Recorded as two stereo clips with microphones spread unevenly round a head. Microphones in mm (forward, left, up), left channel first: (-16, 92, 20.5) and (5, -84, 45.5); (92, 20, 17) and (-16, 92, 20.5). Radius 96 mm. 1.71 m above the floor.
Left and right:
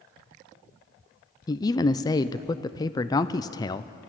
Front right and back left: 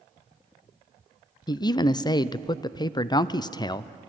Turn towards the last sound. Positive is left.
turn(degrees=25)